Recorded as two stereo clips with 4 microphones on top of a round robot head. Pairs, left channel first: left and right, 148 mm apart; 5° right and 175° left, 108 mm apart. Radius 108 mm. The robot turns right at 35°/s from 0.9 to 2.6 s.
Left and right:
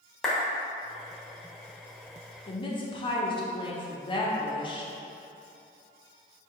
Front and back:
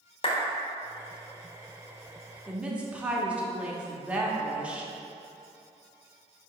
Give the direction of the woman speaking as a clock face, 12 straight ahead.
9 o'clock.